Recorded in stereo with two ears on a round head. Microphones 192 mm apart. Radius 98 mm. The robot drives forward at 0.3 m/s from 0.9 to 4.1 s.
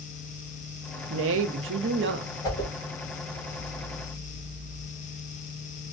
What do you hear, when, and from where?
1.1 s a woman speaking: 70° right (ahead or behind), 0.6 m; by 2.3 s 50° right (ahead or behind), 0.8 m
2.4 s a whoosh: 15° left (ahead or behind), 1.1 m